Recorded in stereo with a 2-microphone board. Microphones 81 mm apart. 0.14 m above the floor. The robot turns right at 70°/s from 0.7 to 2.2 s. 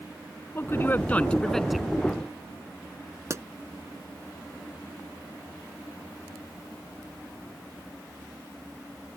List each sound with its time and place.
0.6 s a man speaking: 110° left; by 1.9 s 170° right
3.3 s a pop: 35° right (ahead or behind)